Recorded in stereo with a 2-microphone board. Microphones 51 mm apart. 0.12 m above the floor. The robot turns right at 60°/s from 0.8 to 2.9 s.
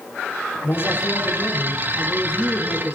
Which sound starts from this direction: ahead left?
A man speaking, at 0.6 s.